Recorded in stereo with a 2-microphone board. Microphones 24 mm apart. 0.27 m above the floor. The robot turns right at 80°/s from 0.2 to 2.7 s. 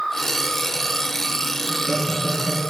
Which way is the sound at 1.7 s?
25° left.